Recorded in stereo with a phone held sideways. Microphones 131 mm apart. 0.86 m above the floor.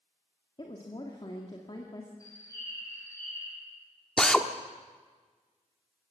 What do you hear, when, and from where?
0.6 s a woman speaking: 35° left (ahead or behind), 2 m
2.2 s a bird: 25° left (ahead or behind), 4.5 m
4.2 s a drill: 5° left (ahead or behind), 1.0 m